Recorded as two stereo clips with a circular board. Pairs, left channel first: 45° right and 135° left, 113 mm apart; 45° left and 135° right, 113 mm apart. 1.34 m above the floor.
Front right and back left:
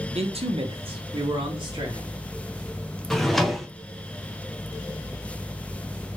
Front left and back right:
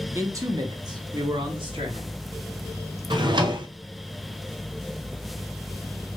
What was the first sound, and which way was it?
A man speaking, 160° left.